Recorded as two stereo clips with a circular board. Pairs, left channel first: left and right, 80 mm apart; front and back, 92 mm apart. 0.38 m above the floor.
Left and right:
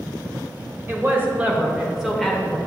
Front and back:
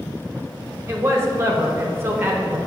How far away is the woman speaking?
About 1.3 m.